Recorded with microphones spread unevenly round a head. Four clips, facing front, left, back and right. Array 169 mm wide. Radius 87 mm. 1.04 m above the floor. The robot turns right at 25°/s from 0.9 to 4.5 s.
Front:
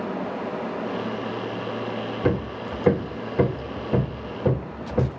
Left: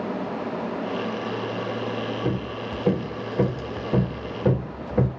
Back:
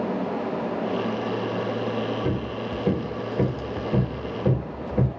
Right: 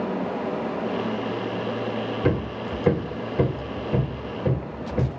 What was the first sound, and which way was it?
Hammering, 10° right.